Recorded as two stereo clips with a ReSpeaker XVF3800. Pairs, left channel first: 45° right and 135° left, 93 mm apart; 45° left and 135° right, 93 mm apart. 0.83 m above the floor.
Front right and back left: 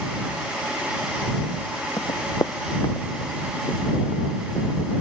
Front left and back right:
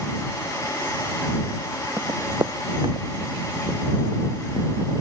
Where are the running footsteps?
80° right; by 4.7 s 100° right.